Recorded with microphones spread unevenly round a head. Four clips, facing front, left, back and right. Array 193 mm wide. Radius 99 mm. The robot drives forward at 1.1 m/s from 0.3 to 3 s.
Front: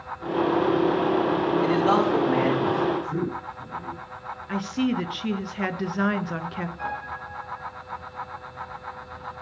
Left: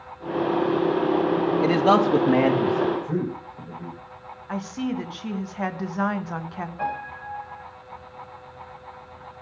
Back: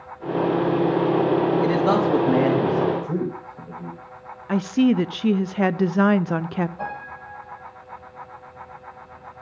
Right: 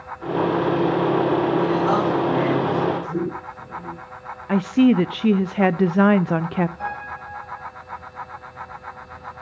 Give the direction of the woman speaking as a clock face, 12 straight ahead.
4 o'clock.